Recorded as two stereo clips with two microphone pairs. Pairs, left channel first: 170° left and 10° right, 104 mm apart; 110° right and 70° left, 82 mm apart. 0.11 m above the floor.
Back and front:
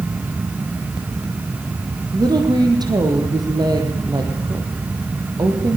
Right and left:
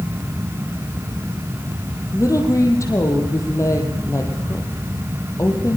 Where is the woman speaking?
60° right, 4 m.